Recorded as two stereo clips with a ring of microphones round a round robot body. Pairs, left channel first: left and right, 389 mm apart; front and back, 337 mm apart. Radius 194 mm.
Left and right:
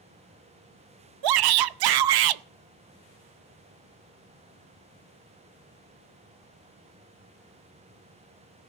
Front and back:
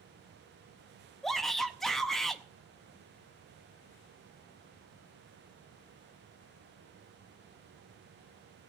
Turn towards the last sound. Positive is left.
turn(degrees=-90)